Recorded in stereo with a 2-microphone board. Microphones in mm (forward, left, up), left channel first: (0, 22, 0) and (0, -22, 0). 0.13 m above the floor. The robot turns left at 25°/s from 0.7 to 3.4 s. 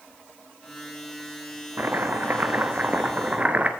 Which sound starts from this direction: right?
Chopping, at 1.8 s.